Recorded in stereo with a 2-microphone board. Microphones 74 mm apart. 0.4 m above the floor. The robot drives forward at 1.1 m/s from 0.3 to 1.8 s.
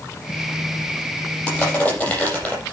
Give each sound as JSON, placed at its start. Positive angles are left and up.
{"t": 1.5, "sound": "crushing", "side_deg": 15, "distance_m": 7.0}